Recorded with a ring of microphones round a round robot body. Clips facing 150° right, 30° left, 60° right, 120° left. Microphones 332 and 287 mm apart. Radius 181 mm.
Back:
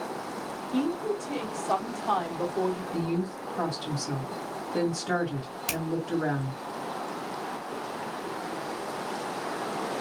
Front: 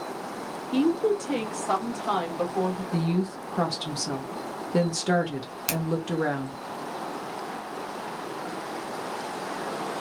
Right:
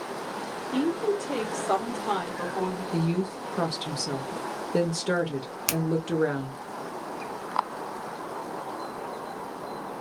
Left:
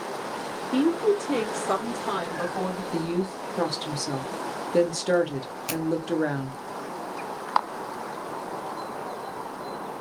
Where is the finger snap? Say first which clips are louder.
Front 3 dB, even; 45° right, 1.2 m.